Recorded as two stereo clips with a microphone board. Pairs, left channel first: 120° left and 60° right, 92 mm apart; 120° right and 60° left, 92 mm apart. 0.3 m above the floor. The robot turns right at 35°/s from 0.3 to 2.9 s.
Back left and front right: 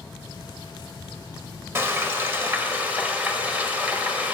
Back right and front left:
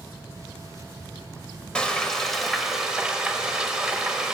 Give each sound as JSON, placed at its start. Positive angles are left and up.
{"t": 1.8, "sound": "frying", "azimuth_deg": -55, "distance_m": 0.9}